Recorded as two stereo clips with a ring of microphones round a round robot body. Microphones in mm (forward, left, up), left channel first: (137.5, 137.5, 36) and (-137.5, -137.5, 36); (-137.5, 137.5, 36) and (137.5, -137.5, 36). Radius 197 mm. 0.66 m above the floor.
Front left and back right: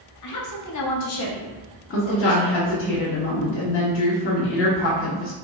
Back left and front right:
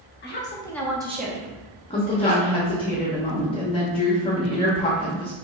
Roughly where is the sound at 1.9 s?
Left.